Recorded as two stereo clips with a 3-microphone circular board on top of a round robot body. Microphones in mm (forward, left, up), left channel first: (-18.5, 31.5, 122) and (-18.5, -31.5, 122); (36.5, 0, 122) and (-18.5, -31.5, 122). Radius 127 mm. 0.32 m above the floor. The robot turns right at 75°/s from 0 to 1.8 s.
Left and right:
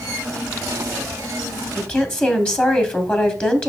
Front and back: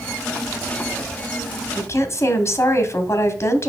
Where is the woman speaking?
30° left, 1.3 m.